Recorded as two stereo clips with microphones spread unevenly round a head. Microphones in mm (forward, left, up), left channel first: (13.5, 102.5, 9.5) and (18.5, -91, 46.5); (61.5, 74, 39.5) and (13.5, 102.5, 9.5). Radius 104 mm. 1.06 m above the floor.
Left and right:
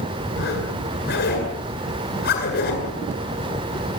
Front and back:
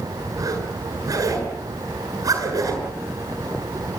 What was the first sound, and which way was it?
A zipper, 135° left.